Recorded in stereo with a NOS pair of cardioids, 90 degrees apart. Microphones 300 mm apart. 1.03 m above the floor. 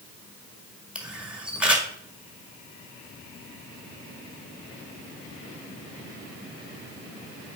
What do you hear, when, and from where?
0.9 s a camera shutter: 5° right, 1.6 m